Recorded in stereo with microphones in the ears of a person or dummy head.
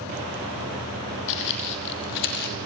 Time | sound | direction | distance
1.3 | footsteps | 65° left (ahead or behind) | 3.5 m